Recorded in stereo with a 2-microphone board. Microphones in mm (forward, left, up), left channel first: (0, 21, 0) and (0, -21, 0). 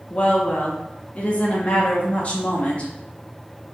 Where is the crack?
I don't hear a crack.